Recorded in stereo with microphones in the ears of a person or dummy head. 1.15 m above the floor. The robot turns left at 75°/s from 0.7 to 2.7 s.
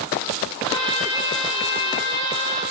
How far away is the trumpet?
About 1.9 m.